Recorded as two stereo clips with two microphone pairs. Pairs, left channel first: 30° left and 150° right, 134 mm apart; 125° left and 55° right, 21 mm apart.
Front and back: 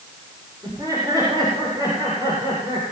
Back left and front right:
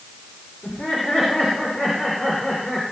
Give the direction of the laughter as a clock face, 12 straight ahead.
7 o'clock.